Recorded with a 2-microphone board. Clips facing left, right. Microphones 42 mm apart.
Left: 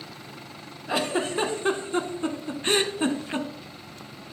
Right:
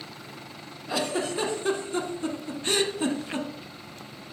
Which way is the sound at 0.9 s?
35° left (ahead or behind).